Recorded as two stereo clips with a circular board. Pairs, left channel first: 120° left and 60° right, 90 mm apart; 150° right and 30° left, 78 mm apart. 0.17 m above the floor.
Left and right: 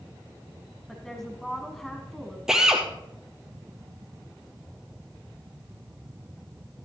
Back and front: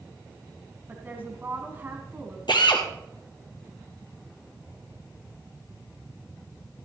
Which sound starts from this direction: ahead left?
A woman speaking, at 0.9 s.